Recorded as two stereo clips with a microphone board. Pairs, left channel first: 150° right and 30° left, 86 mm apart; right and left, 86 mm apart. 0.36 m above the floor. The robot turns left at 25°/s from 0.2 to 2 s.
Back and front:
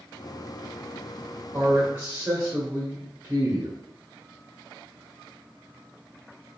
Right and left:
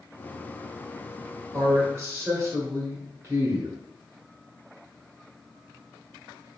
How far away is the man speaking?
About 1.2 m.